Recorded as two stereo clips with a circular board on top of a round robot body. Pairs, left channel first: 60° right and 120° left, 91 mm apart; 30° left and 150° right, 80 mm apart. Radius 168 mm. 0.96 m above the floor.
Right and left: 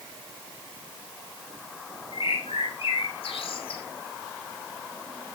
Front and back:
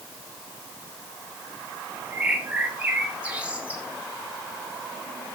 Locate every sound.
2.1 s a bird: 75° right, 2.5 m